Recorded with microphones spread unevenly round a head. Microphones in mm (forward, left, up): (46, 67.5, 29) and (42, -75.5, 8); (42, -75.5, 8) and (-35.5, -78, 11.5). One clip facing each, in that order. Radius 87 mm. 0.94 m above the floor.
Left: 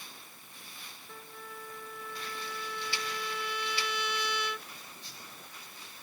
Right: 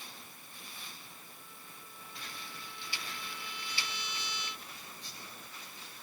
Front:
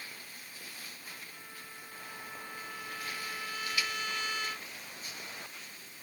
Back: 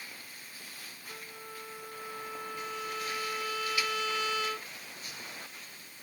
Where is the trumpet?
140° left.